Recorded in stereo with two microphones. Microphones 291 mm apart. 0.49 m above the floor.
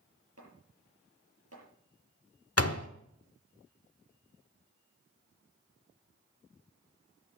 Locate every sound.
0.4 s chopping: 55° right (ahead or behind), 7.5 m
2.6 s a door slam: 55° left (ahead or behind), 1.0 m